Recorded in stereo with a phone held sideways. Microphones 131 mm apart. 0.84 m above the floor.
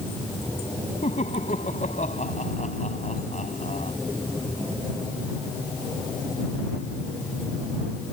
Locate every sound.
1.0 s laughter: 70° left (ahead or behind)